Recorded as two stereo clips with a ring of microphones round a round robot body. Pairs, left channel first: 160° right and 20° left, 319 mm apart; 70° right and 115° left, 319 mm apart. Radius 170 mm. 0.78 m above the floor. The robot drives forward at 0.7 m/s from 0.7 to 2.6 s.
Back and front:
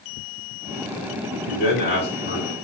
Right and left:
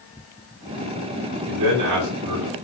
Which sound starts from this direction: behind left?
A man speaking, at 1.4 s.